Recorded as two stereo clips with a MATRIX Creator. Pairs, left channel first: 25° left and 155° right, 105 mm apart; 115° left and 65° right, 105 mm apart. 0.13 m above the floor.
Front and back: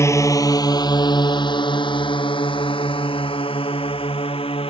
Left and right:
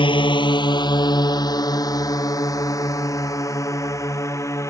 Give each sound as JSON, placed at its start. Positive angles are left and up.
{"t": 0.0, "sound": "a drone", "azimuth_deg": 80}